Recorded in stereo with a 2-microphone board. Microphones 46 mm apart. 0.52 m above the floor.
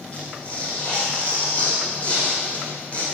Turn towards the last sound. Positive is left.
turn(degrees=30)  # may be behind; listen again after turning